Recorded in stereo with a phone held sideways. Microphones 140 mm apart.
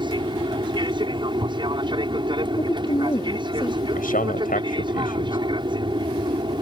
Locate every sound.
0.0 s an aircraft: 35° right (ahead or behind)
2.6 s a woman speaking: 35° left (ahead or behind)
4.0 s a man speaking: 75° left (ahead or behind)